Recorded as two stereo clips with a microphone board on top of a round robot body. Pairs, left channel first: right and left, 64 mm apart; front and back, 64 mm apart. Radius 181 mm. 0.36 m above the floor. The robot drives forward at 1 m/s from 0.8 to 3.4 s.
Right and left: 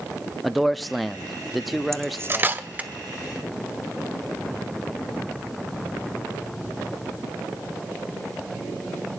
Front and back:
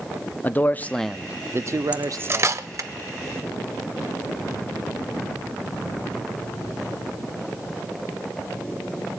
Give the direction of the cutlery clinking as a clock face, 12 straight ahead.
8 o'clock.